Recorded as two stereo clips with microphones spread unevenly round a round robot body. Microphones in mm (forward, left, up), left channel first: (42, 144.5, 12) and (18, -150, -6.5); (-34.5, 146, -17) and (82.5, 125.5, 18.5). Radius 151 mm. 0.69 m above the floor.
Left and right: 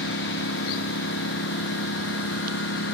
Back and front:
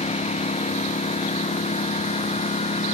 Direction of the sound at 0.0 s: 140° left.